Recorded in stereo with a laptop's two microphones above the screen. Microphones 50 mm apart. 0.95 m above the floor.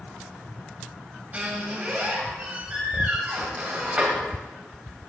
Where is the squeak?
30° right (ahead or behind), 2 m.